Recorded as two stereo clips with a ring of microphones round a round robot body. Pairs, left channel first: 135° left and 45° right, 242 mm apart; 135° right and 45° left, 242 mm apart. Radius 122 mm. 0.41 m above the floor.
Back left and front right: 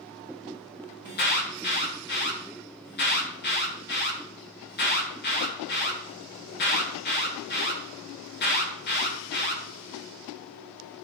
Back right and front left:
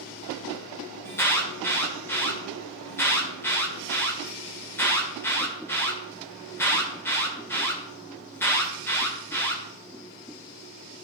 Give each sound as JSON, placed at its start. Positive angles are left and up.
{"t": 1.1, "sound": "an alarm", "azimuth_deg": 150, "distance_m": 1.7}